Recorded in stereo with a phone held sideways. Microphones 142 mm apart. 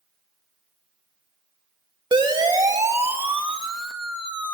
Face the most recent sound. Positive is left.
turn(degrees=10)  # may be behind; listen again after turning